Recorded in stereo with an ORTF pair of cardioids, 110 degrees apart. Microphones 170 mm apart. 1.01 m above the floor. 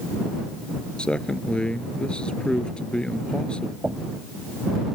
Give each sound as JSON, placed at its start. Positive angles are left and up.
{"t": 1.0, "sound": "a man speaking", "azimuth_deg": 5}
{"t": 3.8, "sound": "knocking", "azimuth_deg": -5}